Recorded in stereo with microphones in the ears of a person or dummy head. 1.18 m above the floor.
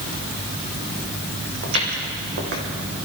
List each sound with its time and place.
1.6 s footsteps: 50° right (ahead or behind), 3 m